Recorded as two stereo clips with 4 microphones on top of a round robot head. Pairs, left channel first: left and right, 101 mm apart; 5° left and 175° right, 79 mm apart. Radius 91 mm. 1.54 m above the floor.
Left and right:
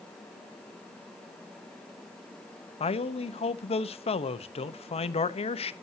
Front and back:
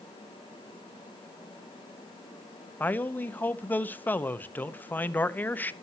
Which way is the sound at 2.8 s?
70° left.